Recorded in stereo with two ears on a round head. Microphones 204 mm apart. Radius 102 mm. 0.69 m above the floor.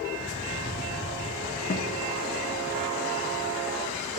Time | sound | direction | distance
1.7 | a guitar | 45° left (ahead or behind) | 1.4 m